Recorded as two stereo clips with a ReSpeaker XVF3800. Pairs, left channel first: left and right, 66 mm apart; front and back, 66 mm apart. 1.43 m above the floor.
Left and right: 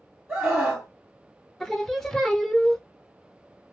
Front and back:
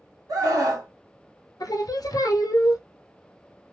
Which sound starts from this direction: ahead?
Singing, at 1.6 s.